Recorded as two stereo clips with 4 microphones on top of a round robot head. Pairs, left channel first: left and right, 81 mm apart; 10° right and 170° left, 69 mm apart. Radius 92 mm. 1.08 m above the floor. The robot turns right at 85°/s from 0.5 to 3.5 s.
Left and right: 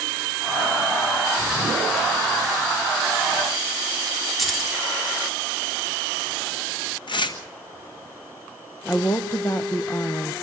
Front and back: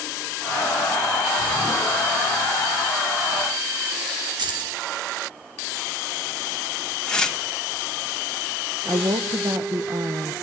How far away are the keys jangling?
About 2.5 m.